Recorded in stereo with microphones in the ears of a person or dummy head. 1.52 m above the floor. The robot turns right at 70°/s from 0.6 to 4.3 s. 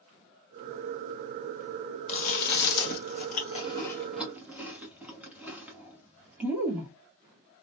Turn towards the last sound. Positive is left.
turn(degrees=-10)  # may be behind; listen again after turning